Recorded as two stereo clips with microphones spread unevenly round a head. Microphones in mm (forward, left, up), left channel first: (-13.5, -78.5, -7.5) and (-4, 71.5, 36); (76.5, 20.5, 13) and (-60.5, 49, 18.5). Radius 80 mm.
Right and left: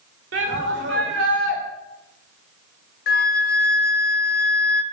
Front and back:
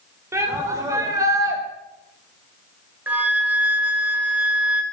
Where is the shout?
95° left, 4 m; by 1.6 s 100° left, 5 m.